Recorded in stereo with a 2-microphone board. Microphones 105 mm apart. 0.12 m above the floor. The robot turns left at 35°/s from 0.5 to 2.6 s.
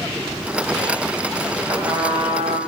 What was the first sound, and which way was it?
A trumpet, 50° right.